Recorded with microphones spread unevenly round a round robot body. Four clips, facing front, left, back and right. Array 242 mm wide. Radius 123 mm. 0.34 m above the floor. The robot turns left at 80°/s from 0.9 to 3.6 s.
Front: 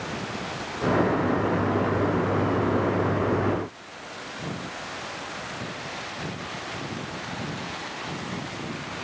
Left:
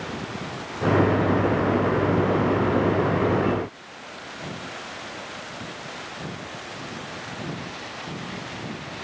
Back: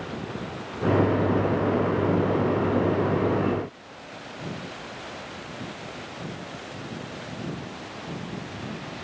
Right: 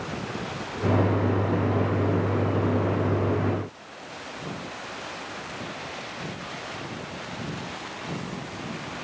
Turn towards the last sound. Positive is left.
No sound to turn to.